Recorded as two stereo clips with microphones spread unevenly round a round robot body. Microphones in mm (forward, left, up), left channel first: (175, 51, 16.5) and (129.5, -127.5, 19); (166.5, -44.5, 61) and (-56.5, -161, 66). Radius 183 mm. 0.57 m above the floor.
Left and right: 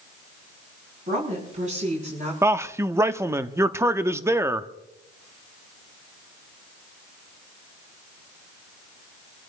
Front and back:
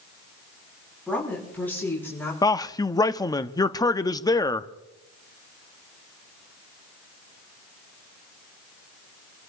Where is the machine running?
I don't hear a machine running.